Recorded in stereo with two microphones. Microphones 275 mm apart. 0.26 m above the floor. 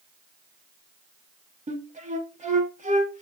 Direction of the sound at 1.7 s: 25° right (ahead or behind).